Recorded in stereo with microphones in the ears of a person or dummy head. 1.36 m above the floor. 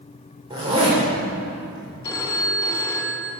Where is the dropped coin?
I don't hear a dropped coin.